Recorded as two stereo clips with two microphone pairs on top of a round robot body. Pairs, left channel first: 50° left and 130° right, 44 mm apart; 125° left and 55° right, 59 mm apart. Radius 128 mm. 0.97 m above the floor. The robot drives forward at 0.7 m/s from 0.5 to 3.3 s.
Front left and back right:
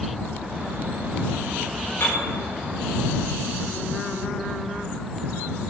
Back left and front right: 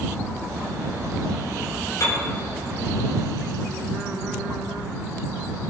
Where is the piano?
95° left, 4 m.